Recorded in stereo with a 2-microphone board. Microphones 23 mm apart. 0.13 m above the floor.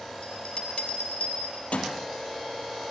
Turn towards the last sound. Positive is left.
turn(degrees=65)  # may be behind; listen again after turning